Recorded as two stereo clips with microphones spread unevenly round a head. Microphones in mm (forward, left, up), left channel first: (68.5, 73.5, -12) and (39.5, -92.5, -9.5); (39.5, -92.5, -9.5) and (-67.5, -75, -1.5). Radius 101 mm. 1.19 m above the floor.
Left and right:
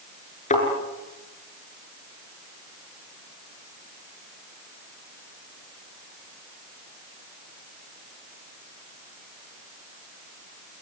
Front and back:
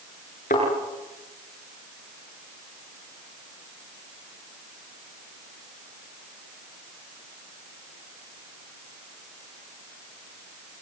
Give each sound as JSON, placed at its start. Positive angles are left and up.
{"t": 0.5, "sound": "a thud", "azimuth_deg": 35, "distance_m": 7.0}